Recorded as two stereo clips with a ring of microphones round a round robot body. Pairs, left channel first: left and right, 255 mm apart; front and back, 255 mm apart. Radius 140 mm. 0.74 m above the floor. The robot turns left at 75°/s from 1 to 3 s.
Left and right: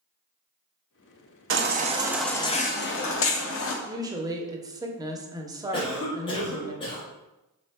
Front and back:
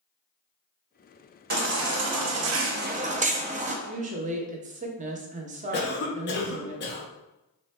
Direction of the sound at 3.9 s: 155° right.